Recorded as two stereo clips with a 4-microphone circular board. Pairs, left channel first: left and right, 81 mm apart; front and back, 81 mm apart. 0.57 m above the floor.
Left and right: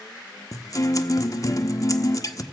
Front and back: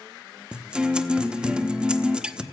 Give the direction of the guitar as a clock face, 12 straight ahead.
9 o'clock.